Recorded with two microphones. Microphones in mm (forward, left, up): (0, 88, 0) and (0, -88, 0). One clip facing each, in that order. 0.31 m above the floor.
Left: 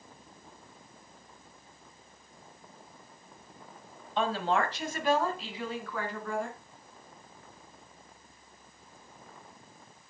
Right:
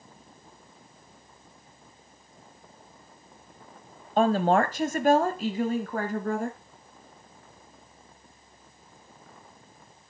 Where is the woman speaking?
45° right (ahead or behind), 1.2 m.